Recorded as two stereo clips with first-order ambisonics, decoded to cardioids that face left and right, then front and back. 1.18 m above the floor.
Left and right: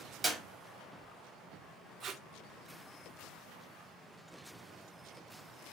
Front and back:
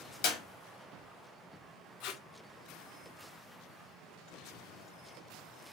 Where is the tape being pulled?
30° right, 0.6 m.